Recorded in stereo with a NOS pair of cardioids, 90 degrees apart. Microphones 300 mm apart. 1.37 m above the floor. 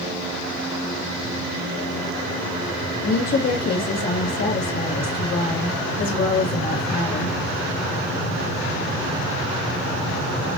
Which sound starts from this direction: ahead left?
A woman speaking, at 3.0 s.